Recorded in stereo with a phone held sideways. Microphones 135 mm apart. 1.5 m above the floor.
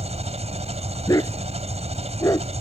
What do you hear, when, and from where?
0.0 s an engine running: 50° right (ahead or behind)
1.1 s a dog barking: 25° left (ahead or behind)